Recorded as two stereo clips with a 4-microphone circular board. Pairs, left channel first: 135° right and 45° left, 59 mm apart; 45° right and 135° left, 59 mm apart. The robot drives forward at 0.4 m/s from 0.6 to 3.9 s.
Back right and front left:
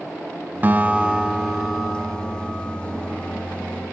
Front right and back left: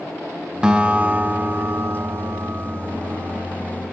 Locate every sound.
0.6 s a guitar: 70° left, 0.7 m; by 3.5 s 160° left, 1.2 m